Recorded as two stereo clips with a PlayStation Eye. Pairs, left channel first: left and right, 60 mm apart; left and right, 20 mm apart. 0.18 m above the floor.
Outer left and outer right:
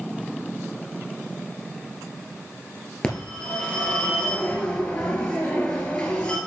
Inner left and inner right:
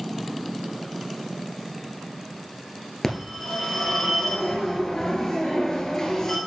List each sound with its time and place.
3.0 s a phone ringing: 20° left (ahead or behind), 1.8 m